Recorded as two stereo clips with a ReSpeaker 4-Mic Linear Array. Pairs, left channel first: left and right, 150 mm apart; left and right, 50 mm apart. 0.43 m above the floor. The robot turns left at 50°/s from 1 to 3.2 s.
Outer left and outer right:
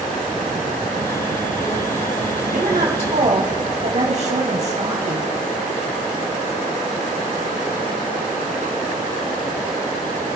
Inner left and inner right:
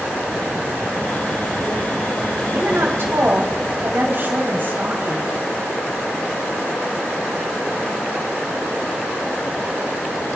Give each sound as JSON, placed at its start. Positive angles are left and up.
{"t": 2.5, "sound": "a woman speaking", "azimuth_deg": -85, "distance_m": 2.5}